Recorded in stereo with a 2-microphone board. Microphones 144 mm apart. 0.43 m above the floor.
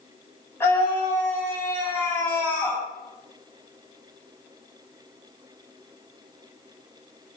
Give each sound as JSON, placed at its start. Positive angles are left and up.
{"t": 0.6, "sound": "a scream", "side_deg": 15, "distance_m": 3.5}